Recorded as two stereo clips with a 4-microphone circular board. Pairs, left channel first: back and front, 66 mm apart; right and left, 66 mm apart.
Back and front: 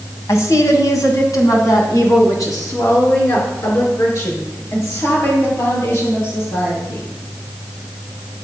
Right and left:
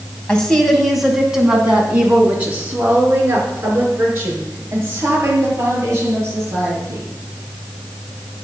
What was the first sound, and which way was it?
A woman speaking, 165° right.